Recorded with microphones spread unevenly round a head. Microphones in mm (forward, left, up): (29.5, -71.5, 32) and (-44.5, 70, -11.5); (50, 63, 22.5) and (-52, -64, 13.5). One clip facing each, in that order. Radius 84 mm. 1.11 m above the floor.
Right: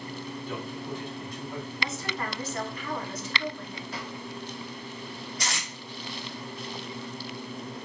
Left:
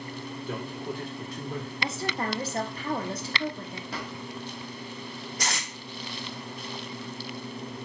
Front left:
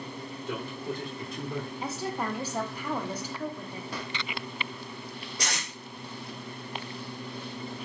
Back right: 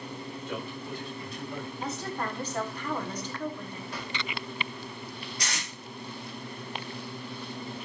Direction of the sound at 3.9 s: 80° left.